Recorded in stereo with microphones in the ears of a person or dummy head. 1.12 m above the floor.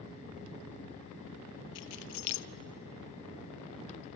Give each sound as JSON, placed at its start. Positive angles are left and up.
{"t": 1.8, "sound": "keys jangling", "side_deg": 70, "distance_m": 0.6}